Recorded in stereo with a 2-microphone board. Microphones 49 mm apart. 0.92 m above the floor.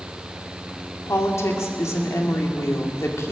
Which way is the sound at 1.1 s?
75° left (ahead or behind).